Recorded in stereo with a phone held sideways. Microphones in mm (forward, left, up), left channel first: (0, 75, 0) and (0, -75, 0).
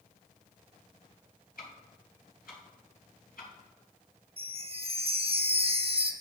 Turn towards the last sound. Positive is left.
turn(degrees=-40)  # may be behind; listen again after turning